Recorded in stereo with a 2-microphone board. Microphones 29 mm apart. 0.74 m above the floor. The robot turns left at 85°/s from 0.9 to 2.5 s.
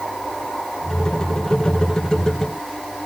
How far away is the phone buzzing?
No phone buzzing in this recording.